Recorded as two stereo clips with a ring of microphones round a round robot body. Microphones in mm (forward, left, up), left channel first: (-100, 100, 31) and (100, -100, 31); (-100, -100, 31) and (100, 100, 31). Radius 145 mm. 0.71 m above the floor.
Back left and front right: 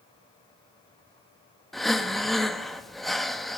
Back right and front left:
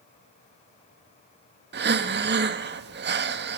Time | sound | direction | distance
1.7 | breathing | 45° left | 1.3 m